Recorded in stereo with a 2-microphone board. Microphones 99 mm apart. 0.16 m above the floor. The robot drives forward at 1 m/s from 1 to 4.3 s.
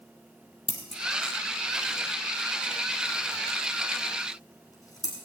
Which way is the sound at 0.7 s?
75° left (ahead or behind).